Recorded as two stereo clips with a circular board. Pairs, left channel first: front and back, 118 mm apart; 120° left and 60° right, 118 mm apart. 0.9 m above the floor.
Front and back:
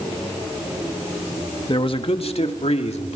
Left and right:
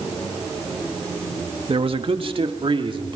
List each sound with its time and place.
1.7 s a man speaking: 35° right, 1.5 m; by 3.2 s 15° right, 3 m